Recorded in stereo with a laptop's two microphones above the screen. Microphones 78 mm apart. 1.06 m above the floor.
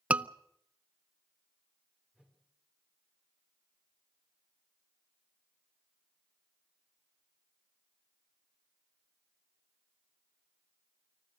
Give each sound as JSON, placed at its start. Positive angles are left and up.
{"t": 0.1, "sound": "a scream", "side_deg": -20, "distance_m": 0.7}
{"t": 2.1, "sound": "a whoosh", "side_deg": -10, "distance_m": 5.0}